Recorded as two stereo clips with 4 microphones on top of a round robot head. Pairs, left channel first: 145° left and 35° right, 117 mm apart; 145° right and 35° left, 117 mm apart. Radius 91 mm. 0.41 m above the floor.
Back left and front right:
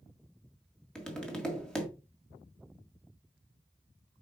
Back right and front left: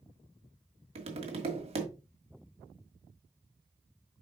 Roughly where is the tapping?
Ahead left.